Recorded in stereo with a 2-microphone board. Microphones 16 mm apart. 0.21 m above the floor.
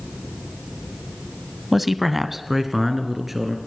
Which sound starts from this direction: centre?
A man speaking, at 1.7 s.